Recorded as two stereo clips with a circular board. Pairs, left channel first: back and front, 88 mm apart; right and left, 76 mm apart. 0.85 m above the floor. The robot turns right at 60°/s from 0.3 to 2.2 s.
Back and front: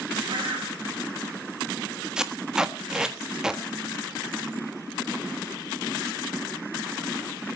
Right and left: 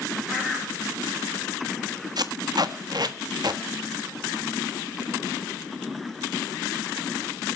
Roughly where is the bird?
Ahead.